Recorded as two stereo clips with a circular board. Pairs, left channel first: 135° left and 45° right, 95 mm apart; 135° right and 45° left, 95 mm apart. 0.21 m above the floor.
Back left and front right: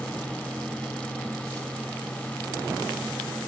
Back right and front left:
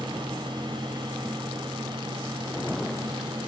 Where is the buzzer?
No buzzer in this recording.